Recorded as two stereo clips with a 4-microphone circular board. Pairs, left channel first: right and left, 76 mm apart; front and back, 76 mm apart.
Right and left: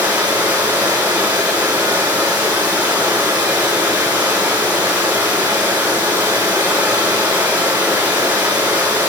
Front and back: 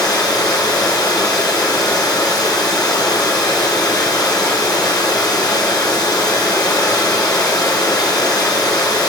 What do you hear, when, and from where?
0.0 s running water: 25° left, 6 m